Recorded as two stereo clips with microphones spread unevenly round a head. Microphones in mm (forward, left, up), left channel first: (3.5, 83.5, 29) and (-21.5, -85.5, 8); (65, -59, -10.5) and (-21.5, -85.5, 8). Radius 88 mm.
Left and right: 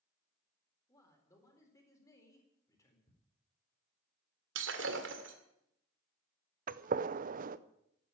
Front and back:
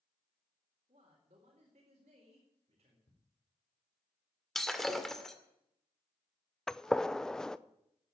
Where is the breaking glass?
75° right, 1.9 m.